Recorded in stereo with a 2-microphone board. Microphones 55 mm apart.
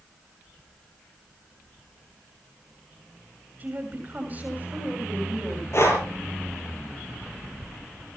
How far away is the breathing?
About 5 m.